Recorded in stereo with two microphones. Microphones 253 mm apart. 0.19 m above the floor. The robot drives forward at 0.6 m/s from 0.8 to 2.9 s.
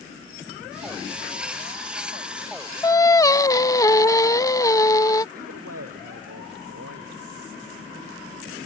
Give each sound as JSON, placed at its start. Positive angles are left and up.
{"t": 2.8, "sound": "singing", "side_deg": 15}
{"t": 5.3, "sound": "a man speaking", "side_deg": -75}